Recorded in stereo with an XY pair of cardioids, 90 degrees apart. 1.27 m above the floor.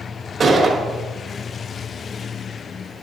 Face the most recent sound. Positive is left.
turn(degrees=-55)